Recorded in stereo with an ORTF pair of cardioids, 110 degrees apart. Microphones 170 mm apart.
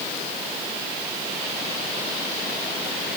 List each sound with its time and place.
Only background noise.